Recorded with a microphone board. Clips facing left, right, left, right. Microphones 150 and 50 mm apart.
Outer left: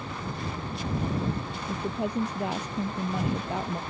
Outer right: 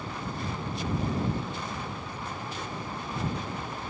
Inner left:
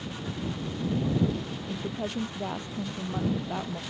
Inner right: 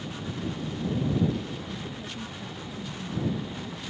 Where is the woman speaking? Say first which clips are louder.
Outer left 7 dB, inner left 4 dB; 70° left (ahead or behind); by 3.8 s 80° left.